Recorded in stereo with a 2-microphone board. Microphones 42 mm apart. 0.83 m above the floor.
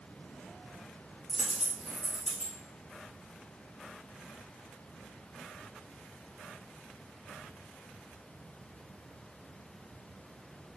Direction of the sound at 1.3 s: Centre (ahead or behind).